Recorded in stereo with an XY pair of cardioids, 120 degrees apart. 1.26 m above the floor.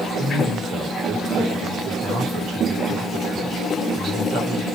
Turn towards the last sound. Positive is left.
turn(degrees=-65)